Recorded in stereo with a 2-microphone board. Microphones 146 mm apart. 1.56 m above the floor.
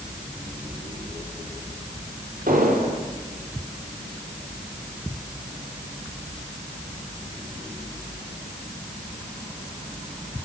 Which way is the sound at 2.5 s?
70° right (ahead or behind).